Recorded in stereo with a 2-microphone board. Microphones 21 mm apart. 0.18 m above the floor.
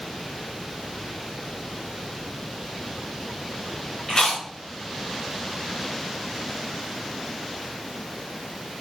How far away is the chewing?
About 1.2 m.